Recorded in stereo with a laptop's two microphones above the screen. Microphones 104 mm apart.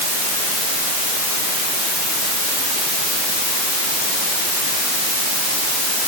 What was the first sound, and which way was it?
Only background noise.